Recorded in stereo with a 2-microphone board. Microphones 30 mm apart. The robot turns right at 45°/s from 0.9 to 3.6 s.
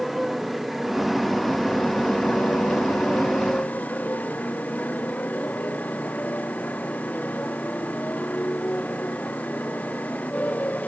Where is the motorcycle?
5° right; by 10.9 s 120° left.